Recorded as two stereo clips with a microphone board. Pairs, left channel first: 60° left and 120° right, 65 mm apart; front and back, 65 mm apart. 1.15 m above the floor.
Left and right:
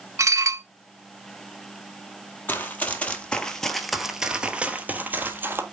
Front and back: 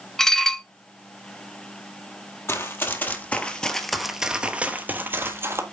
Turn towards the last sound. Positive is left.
turn(degrees=-160)